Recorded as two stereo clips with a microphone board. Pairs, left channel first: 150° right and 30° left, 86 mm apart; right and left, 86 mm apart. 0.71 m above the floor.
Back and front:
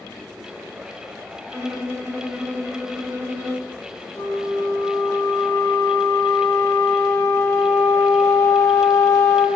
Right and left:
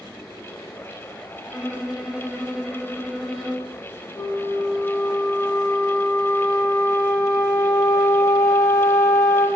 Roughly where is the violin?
Ahead.